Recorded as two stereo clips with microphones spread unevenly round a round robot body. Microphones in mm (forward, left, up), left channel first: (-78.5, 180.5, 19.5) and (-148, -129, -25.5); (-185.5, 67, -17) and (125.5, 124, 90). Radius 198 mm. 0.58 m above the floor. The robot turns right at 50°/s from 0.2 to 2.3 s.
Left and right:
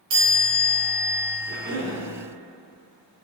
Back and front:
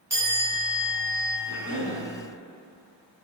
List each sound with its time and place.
0.1 s a chime: 85° right, 2 m; by 1.4 s 25° right, 2 m
1.5 s a cough: 155° right, 1.5 m; by 2.0 s 130° right, 1.5 m